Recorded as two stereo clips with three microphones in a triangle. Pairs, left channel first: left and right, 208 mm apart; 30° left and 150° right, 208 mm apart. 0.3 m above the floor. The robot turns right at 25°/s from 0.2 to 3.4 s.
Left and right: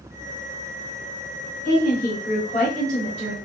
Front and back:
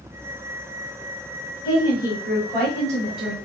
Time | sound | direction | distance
1.6 | a woman speaking | 90° left | 1.6 m